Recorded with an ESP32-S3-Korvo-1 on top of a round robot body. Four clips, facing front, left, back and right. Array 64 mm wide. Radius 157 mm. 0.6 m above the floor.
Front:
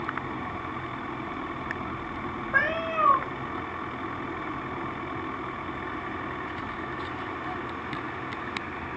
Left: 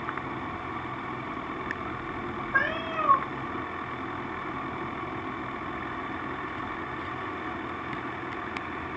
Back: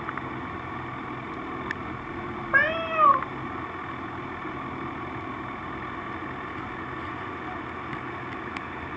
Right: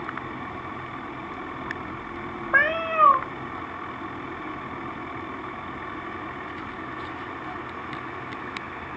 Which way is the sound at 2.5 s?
120° right.